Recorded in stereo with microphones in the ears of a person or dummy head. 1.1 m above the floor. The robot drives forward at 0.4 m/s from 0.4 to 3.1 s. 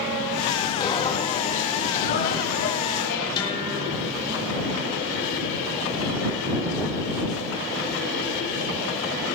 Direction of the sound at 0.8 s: 20° left (ahead or behind).